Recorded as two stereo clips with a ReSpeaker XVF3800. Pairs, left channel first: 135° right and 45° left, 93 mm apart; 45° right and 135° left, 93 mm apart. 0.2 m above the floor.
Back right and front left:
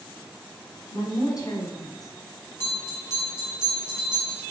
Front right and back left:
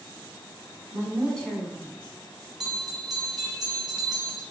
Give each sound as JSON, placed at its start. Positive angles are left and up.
{"t": 0.9, "sound": "a woman speaking", "azimuth_deg": -120, "distance_m": 1.5}
{"t": 2.6, "sound": "a bell", "azimuth_deg": -145, "distance_m": 1.4}